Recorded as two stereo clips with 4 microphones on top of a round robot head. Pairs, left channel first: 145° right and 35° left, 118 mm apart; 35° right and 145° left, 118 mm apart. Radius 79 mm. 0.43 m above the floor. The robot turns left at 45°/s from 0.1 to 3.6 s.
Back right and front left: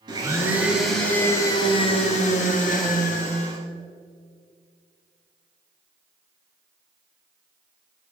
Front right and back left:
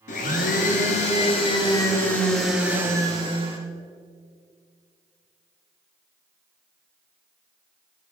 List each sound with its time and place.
0.1 s a blender: 20° right, 1.7 m; by 3.6 s straight behind, 1.7 m